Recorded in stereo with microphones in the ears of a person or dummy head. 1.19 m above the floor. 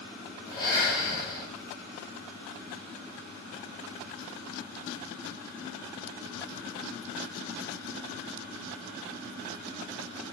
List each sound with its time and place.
0.5 s breathing: 20° left (ahead or behind), 1.8 m